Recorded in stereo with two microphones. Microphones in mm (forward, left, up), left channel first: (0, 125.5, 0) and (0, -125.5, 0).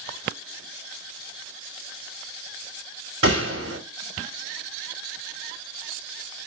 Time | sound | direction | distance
3.2 | a gunshot | 65° right (ahead or behind) | 7 m